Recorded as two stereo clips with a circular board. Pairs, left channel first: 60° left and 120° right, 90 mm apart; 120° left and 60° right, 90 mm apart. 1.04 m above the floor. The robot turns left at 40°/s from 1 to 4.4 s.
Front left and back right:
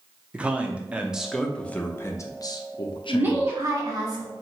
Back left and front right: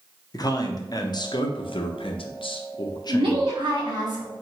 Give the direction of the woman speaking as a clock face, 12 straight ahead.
2 o'clock.